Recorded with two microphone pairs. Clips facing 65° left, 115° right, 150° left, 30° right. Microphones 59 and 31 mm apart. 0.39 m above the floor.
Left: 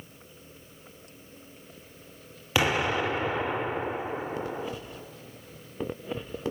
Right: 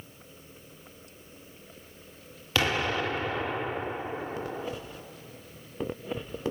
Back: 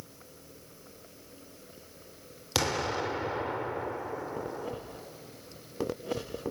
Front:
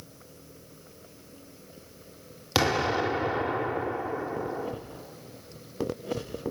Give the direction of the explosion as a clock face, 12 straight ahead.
12 o'clock.